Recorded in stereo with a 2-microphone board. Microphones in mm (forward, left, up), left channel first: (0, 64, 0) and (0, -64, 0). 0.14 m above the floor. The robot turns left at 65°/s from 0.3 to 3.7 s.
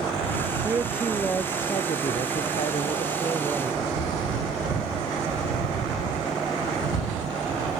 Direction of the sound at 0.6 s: 155° right.